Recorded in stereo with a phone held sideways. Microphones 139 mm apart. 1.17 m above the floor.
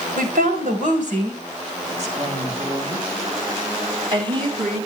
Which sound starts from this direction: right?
A woman speaking, at 0.2 s.